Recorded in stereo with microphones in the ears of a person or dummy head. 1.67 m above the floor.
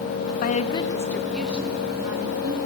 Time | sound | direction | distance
0.4 | a woman speaking | 50° left (ahead or behind) | 0.9 m